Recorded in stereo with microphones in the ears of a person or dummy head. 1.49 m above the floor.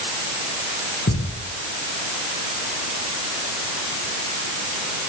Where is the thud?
45° left (ahead or behind), 7 m.